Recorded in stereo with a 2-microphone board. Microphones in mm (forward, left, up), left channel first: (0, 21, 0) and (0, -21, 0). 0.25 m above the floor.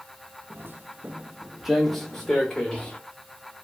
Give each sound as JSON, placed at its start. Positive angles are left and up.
{"t": 0.5, "sound": "footsteps", "side_deg": -70, "distance_m": 0.5}